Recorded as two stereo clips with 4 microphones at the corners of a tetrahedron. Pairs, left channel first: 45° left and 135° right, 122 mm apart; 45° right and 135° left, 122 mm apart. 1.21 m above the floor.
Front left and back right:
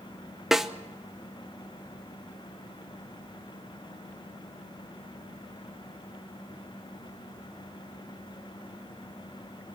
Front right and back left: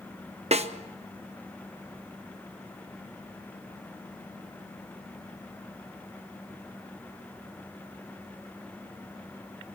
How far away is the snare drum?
About 1.0 m.